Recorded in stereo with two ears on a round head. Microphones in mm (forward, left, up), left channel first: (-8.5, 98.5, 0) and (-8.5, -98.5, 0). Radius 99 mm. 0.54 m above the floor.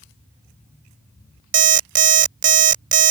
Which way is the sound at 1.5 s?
40° right (ahead or behind).